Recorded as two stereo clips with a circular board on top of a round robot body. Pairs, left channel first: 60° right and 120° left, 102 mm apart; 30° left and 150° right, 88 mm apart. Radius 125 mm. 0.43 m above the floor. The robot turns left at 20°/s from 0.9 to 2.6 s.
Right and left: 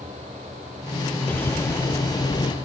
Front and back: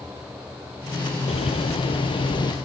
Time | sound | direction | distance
1.3 | a bird | 15° left | 1.9 m